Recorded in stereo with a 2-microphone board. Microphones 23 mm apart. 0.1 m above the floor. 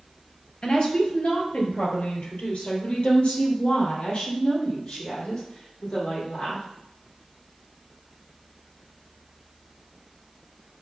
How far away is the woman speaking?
About 1.9 m.